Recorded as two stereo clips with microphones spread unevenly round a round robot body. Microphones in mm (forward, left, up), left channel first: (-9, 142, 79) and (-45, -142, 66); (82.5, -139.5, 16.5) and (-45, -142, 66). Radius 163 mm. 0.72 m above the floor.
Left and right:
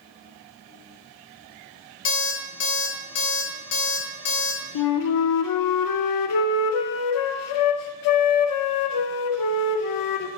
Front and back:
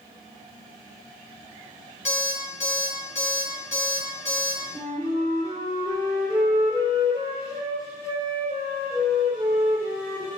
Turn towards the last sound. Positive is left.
turn(degrees=105)